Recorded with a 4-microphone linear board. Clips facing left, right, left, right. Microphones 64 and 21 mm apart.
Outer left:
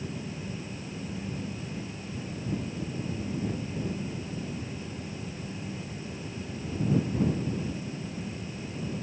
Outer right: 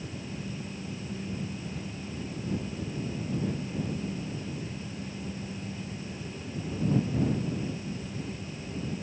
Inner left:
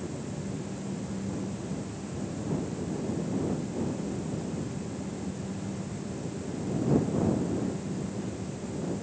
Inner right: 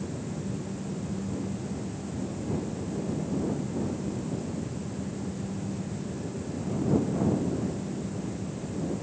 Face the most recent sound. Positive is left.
No sound to turn to.